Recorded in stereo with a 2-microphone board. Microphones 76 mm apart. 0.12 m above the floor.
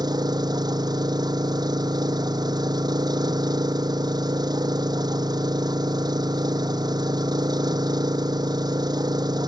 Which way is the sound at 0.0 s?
65° right (ahead or behind).